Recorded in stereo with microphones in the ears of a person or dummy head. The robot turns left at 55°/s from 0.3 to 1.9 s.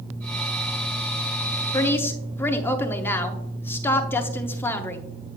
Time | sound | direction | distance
1.7 | a woman speaking | 20° left (ahead or behind) | 0.7 m